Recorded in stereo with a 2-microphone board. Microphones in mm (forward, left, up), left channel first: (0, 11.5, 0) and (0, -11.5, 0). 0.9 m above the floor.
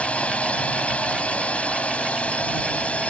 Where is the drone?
75° left (ahead or behind).